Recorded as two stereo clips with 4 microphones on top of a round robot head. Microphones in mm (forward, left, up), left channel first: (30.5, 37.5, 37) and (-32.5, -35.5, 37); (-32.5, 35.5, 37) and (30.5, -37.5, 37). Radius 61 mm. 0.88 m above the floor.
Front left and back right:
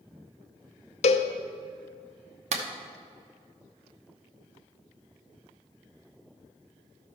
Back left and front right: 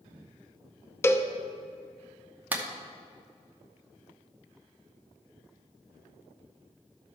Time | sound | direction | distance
1.0 | a cowbell | 65° left | 0.6 m
2.5 | a clap | 125° right | 0.9 m